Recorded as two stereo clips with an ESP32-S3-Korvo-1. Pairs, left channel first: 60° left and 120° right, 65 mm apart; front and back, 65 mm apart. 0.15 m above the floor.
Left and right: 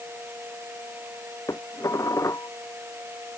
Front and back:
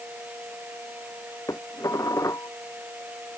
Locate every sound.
1.5 s dishes clattering: 30° left